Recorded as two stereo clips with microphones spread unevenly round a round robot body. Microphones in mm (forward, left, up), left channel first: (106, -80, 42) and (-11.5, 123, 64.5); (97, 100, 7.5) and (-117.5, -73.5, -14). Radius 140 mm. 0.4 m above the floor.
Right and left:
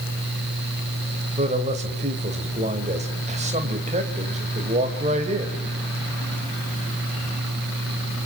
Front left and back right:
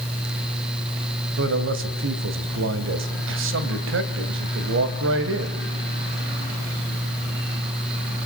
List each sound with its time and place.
1.4 s a man speaking: 175° right, 2.5 m